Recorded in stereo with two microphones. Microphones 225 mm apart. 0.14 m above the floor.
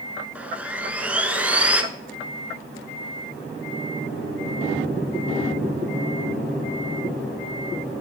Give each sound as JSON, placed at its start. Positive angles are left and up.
{"t": 0.3, "sound": "sawing", "side_deg": -5, "distance_m": 0.6}